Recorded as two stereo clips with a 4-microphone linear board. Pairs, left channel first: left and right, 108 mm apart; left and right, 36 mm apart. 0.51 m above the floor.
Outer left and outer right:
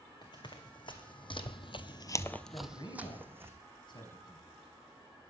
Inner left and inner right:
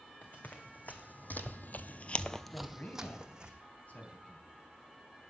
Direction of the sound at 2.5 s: 45° left (ahead or behind).